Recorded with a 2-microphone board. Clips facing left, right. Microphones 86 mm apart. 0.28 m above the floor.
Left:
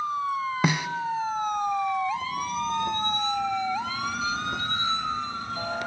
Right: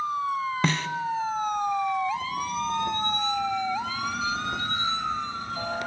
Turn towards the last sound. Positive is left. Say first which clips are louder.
# left 2 dB
turn(degrees=10)  # may be behind; listen again after turning